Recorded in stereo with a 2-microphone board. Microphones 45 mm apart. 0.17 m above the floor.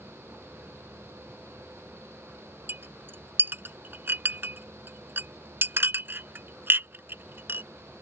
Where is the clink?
50° right (ahead or behind).